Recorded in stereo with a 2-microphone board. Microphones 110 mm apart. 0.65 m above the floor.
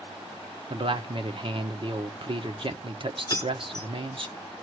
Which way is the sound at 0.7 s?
50° right (ahead or behind).